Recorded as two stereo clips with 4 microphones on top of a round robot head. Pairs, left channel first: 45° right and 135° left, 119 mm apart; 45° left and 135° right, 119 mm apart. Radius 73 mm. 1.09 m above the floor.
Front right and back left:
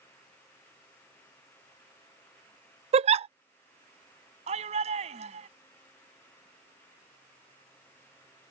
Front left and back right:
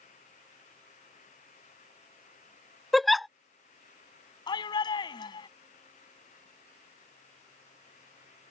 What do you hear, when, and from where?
2.9 s a giggle: 135° left
4.5 s a shout: 100° left